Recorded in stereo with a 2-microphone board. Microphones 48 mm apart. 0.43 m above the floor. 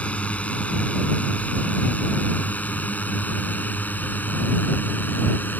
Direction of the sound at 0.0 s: 30° left (ahead or behind).